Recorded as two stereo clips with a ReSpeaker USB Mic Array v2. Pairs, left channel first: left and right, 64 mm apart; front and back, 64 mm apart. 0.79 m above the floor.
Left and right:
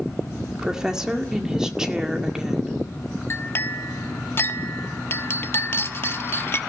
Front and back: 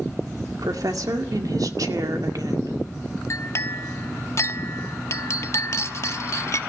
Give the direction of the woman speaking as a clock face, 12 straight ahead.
6 o'clock.